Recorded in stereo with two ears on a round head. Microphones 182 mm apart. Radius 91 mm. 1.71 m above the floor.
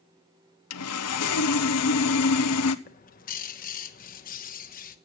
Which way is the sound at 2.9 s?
45° left (ahead or behind).